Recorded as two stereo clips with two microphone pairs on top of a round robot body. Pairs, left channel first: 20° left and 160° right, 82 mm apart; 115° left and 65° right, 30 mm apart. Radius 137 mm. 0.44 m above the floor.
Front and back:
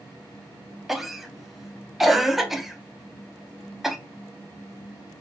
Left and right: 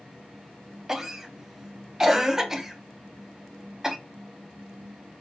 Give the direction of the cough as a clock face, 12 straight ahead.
3 o'clock.